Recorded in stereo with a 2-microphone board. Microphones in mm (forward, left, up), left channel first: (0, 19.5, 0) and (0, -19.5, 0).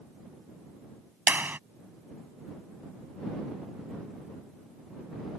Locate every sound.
1.3 s a clap: 60° right (ahead or behind)